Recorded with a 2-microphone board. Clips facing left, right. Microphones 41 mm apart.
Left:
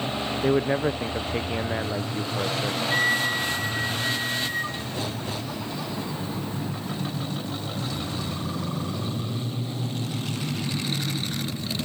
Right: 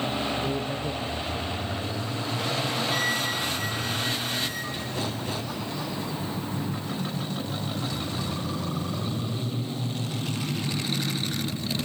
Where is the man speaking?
60° left (ahead or behind), 0.9 m.